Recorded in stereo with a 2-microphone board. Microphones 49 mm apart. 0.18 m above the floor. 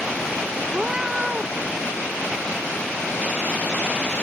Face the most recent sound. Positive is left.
turn(degrees=-15)  # may be behind; listen again after turning